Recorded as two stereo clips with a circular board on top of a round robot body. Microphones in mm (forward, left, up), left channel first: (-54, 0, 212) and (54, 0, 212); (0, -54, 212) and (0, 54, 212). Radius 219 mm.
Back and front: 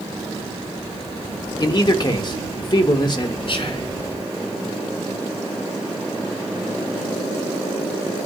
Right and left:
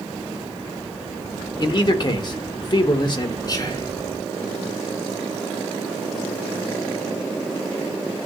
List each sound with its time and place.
1.6 s a man speaking: 135° right, 1.1 m
3.5 s whispering: 145° right, 4.5 m